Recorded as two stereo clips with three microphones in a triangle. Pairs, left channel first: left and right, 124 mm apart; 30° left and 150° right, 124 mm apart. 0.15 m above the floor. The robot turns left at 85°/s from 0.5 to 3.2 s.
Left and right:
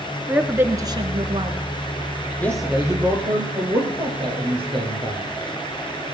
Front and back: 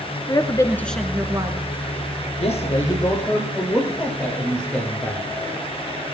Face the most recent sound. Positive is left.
turn(degrees=-50)